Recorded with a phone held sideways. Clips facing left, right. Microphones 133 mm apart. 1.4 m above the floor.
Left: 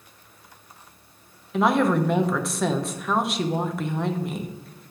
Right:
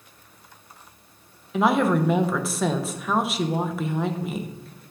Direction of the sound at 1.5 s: Centre (ahead or behind).